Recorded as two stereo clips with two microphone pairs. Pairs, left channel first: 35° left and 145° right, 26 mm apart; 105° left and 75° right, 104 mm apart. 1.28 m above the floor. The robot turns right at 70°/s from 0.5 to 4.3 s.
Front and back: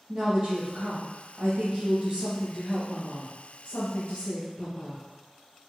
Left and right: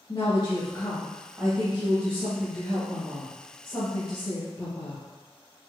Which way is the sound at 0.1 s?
160° left.